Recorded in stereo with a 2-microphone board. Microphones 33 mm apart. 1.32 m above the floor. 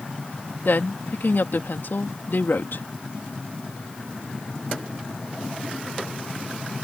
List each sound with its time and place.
0.7 s a woman speaking: 75° left (ahead or behind)